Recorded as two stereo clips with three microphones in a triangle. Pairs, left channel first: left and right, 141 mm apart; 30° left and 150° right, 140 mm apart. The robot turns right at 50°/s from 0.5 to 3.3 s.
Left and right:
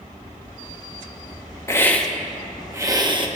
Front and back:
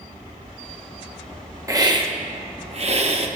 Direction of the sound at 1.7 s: 150° left.